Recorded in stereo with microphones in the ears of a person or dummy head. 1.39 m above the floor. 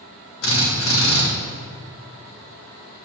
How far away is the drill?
About 2.5 m.